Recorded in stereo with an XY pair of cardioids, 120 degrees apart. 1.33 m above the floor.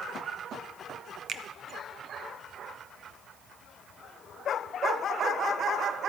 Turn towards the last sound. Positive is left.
turn(degrees=-50)